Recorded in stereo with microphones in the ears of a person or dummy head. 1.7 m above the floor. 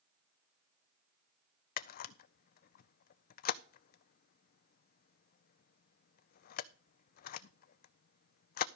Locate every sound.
1.8 s a camera shutter: 55° left (ahead or behind), 0.5 m